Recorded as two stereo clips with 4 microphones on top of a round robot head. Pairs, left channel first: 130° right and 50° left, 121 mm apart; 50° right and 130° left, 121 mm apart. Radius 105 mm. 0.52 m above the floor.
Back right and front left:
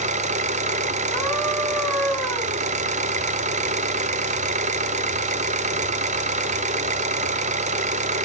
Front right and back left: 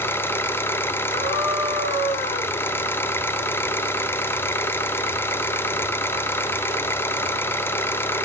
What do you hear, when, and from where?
0.0 s an engine running: 25° left, 0.8 m
1.1 s a scream: 45° right, 5 m